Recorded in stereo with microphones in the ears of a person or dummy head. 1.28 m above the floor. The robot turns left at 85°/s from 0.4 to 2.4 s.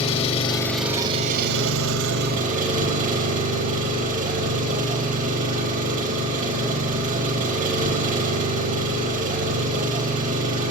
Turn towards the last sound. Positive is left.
turn(degrees=-140)